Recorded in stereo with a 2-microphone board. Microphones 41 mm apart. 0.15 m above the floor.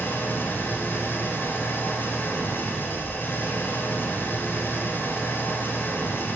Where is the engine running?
60° left (ahead or behind), 1.6 m.